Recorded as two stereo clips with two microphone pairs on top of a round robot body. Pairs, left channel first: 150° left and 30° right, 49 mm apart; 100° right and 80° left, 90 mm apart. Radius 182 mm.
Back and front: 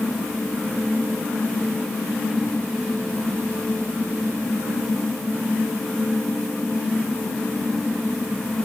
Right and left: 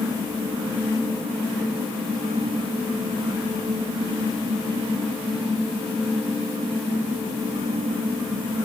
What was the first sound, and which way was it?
Only background noise.